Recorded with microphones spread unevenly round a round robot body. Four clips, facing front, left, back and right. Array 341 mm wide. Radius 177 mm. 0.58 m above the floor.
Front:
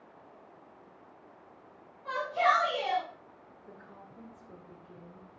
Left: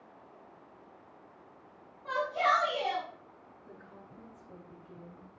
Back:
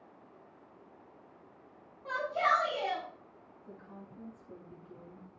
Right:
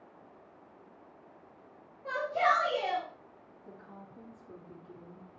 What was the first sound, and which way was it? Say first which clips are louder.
A shout: even, front 3 dB; 110° right.